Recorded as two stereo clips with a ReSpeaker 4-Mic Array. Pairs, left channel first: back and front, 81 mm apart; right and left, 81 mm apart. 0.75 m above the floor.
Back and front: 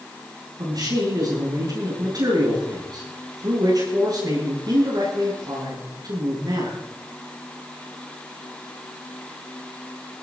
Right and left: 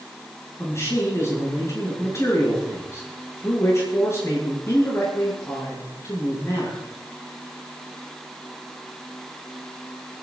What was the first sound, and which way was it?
A man speaking, 35° right.